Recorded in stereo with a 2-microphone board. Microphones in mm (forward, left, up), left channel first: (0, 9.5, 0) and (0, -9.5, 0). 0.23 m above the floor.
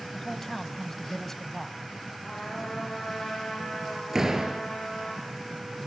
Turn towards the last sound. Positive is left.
turn(degrees=-25)  # may be behind; listen again after turning